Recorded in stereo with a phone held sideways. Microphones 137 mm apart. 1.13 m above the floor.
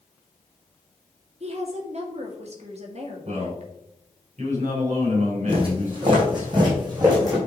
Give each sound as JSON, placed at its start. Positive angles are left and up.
{"t": 1.4, "sound": "a woman speaking", "side_deg": -50, "distance_m": 1.8}
{"t": 3.2, "sound": "a man speaking", "side_deg": -60, "distance_m": 4.5}
{"t": 5.5, "sound": "footsteps", "side_deg": -40, "distance_m": 3.0}